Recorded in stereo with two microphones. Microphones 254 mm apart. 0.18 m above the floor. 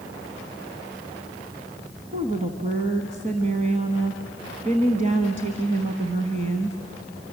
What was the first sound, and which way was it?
A woman speaking, 30° right (ahead or behind).